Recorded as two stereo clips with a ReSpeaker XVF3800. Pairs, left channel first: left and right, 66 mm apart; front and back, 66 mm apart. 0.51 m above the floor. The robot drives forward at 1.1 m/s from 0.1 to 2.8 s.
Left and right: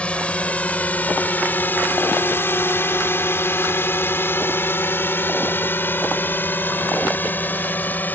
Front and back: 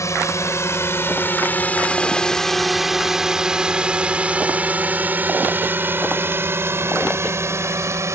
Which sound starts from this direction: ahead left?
A drone, at 0.0 s.